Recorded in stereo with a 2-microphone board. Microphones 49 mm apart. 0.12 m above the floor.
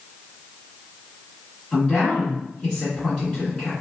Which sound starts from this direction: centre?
A woman speaking, at 1.7 s.